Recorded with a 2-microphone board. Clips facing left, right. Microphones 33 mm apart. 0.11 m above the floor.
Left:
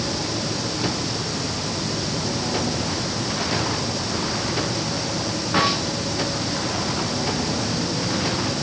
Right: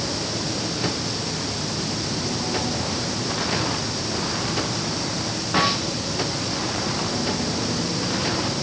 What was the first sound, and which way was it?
Only background noise.